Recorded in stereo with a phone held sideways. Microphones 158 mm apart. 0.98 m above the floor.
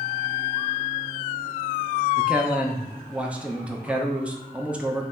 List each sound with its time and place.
2.2 s a man speaking: 10° right (ahead or behind), 0.5 m